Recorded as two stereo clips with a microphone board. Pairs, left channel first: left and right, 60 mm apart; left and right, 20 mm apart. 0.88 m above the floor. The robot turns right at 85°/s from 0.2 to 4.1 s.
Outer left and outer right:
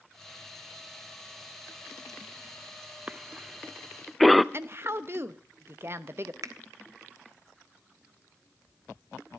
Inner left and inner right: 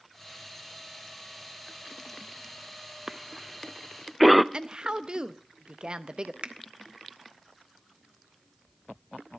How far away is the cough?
About 0.6 m.